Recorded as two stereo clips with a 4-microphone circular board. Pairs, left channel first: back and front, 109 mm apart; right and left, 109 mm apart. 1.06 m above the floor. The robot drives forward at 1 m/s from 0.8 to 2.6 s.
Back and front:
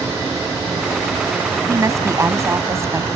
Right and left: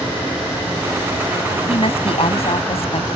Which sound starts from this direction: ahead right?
A woman speaking, at 1.7 s.